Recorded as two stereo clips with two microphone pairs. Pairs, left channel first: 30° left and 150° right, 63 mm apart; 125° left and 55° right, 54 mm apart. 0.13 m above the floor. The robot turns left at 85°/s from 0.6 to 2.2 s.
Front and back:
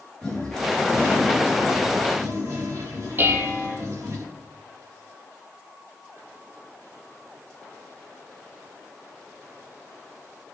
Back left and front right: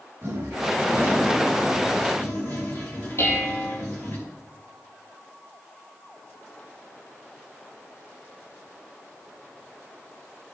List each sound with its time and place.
0.2 s a toilet flushing: 50° right, 4.5 m; by 4.2 s 175° left, 4.5 m
3.2 s dishes clattering: 160° left, 2.5 m